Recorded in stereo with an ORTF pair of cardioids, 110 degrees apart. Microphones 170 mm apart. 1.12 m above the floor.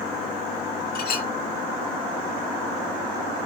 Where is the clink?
60° left, 1.9 m.